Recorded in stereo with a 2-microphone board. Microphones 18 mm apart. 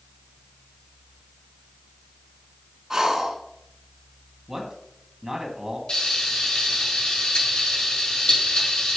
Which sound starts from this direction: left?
Frying, at 5.9 s.